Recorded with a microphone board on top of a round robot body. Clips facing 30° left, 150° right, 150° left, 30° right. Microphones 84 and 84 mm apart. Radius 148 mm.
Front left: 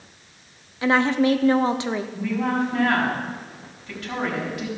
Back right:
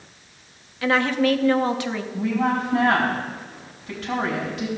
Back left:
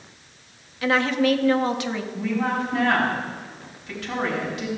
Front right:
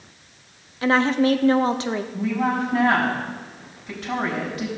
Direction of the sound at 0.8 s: 15° right.